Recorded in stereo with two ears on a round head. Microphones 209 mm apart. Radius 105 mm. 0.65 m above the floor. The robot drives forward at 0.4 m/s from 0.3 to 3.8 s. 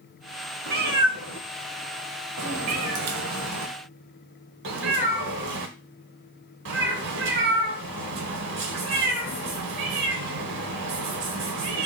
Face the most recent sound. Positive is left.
turn(degrees=-55)  # may be behind; listen again after turning